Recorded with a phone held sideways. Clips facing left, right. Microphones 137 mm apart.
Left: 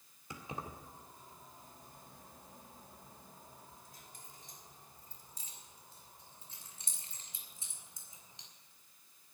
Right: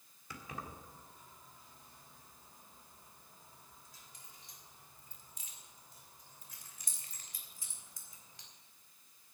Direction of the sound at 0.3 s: 25° left (ahead or behind).